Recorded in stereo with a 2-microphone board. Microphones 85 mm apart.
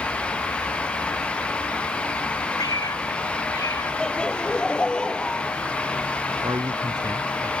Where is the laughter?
10° left (ahead or behind).